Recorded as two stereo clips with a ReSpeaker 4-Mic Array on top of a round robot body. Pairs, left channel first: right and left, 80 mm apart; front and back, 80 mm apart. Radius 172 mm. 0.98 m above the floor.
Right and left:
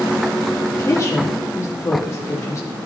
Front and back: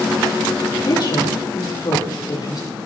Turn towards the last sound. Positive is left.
turn(degrees=-40)